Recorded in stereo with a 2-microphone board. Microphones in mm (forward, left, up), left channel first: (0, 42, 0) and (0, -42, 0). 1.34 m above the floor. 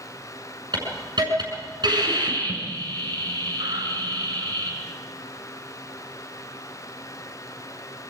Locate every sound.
0.7 s a hiss: 55° right (ahead or behind), 7.5 m